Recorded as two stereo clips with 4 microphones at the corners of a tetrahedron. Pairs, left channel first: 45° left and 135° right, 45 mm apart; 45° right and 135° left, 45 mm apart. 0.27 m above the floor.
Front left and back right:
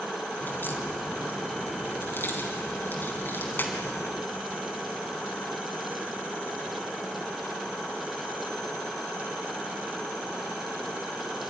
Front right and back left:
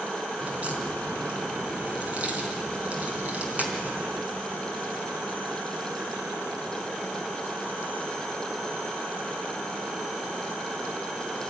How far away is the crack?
About 3 m.